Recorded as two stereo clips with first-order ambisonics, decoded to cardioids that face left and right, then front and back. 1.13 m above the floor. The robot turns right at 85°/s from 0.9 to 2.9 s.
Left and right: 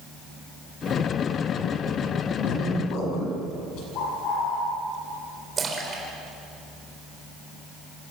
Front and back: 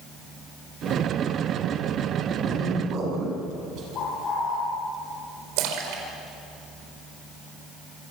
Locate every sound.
2.4 s a man speaking: 85° left, 8.5 m; by 3.9 s 130° left, 8.5 m
4.0 s a bird: 55° left, 9 m
5.6 s a splash: 165° right, 4.5 m